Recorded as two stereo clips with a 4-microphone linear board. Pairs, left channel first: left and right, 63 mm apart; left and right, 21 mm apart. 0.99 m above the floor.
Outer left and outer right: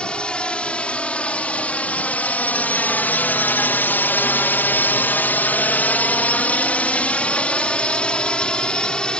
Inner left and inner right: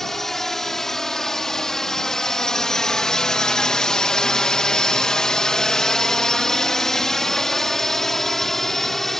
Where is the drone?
15° left (ahead or behind).